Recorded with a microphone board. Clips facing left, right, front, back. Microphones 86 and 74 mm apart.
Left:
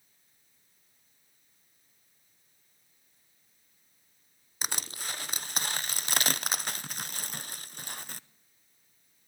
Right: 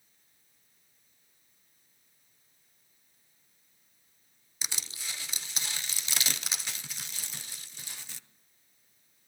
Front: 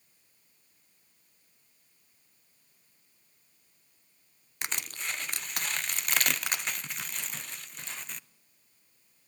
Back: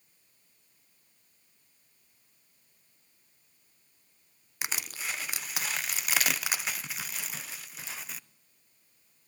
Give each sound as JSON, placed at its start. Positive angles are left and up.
{"t": 4.6, "sound": "crushing", "azimuth_deg": 95, "distance_m": 0.7}